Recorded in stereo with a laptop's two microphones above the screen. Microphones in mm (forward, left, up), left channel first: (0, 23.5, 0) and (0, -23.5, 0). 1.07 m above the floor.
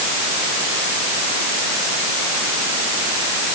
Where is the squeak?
I don't hear a squeak.